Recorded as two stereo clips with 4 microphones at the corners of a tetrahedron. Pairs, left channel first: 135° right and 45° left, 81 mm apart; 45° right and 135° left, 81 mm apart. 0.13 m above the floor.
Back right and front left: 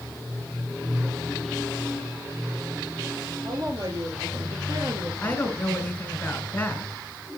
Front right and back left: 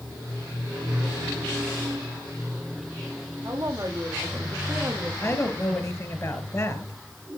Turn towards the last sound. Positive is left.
turn(degrees=-75)